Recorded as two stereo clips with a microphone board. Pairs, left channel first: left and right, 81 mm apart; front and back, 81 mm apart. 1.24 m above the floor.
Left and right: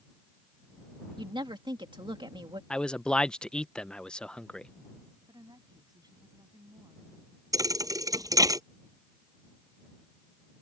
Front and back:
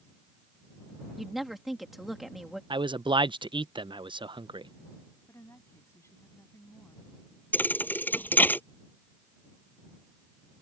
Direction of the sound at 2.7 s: 170° left.